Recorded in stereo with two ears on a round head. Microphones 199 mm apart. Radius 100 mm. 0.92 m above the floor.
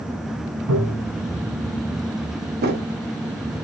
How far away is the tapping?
About 4 m.